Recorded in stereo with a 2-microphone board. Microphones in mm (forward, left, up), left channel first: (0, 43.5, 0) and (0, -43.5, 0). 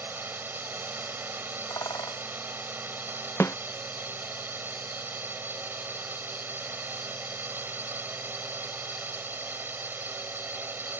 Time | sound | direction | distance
0.0 | a drone | 25° right (ahead or behind) | ?
1.7 | a bird | 45° left (ahead or behind) | ?
3.4 | a snare drum | 35° left (ahead or behind) | ?